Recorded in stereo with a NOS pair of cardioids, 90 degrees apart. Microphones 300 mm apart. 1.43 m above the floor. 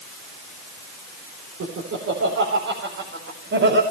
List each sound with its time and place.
1.6 s laughter: 50° right, 4 m; by 3.8 s 40° right, 5 m